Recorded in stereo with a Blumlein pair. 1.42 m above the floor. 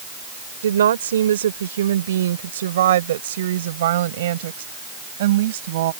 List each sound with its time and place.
0.6 s a woman speaking: 65° right; by 5.9 s 55° right